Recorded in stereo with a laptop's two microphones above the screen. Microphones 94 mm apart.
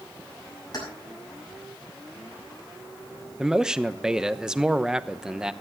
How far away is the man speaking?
About 0.9 m.